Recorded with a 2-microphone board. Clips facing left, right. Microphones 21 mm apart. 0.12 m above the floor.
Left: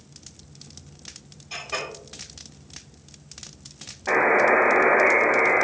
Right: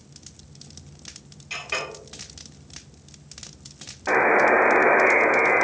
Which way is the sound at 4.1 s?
35° right (ahead or behind).